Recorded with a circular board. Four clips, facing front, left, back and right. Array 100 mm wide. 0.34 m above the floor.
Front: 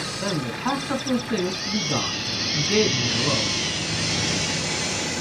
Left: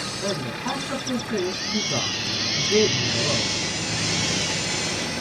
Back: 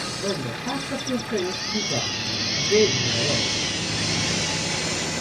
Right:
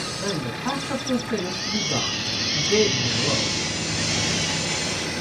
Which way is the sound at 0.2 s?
Straight ahead.